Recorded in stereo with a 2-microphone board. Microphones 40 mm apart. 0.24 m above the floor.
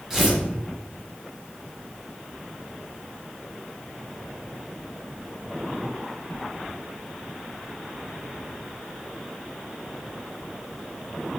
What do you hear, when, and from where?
0.1 s tearing paper: 10° right (ahead or behind), 1.2 m